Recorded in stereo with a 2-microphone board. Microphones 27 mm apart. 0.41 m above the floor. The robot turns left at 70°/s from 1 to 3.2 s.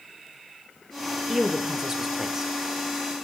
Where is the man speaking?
5° right (ahead or behind), 0.9 m; by 2.5 s 20° right (ahead or behind), 0.9 m.